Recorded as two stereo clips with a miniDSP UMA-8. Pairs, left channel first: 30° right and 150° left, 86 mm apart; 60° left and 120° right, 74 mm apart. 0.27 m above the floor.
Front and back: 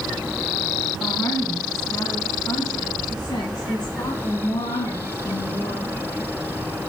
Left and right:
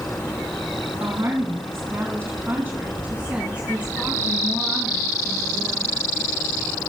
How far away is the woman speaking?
About 2.5 m.